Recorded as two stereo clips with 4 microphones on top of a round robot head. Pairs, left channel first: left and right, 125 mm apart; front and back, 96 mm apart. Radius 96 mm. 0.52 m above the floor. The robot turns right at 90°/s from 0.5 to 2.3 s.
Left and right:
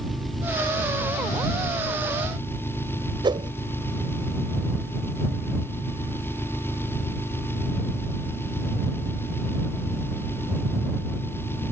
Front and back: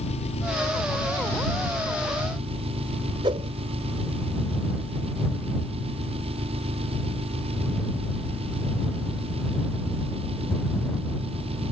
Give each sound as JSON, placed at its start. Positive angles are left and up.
{"t": 0.0, "sound": "an engine running", "azimuth_deg": 0}
{"t": 3.2, "sound": "a whoosh", "azimuth_deg": -140}